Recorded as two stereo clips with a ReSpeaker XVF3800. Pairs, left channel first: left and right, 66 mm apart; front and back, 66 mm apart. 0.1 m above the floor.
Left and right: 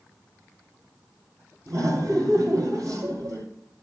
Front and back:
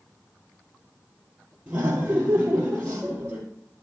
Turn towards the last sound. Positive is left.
turn(degrees=-115)